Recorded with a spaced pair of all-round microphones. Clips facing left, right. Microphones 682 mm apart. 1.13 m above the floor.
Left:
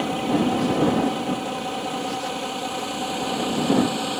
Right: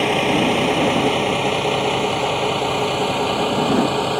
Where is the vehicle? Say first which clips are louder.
Right 3 dB; 90° right; by 4.2 s 75° right (ahead or behind).